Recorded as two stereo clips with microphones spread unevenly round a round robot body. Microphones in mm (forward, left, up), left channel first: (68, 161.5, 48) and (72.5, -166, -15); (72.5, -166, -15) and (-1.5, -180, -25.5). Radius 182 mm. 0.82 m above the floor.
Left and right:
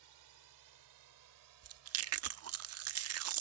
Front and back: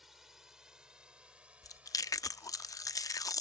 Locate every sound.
0.0 s a drone: 85° right; by 3.4 s 105° right
1.6 s chewing: 40° right